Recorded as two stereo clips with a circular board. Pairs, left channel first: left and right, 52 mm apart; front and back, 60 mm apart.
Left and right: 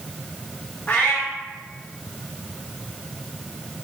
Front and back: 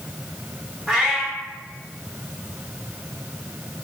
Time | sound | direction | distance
0.9 | a cat meowing | 100° left | 1.5 m